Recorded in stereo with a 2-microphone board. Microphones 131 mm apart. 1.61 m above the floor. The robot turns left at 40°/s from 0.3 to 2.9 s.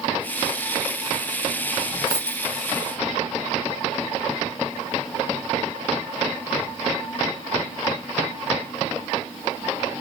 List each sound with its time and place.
2.1 s a dropped coin: 40° left (ahead or behind), 1.4 m; by 2.5 s 35° left (ahead or behind), 1.4 m